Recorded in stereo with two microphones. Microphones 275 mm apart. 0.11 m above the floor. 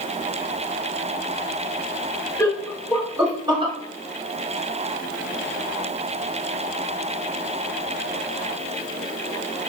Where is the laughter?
10° left (ahead or behind), 1.4 m; by 3.7 s 20° right (ahead or behind), 1.5 m.